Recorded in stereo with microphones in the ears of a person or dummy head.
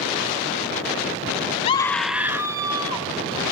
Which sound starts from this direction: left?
A scream, at 1.6 s.